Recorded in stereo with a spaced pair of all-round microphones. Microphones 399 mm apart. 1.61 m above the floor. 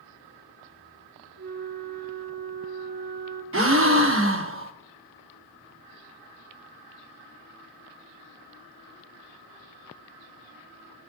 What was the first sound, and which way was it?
A flute, 40° right (ahead or behind).